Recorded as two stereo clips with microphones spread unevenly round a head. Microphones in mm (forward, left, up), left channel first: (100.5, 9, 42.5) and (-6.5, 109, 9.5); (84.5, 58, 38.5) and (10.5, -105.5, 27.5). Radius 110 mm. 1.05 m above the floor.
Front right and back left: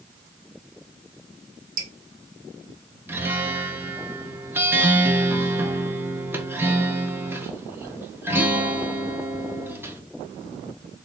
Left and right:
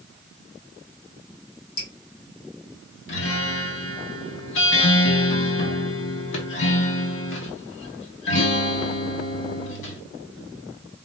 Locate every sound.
1.8 s dripping: 115° left, 1.5 m
3.1 s a guitar: 65° left, 1.1 m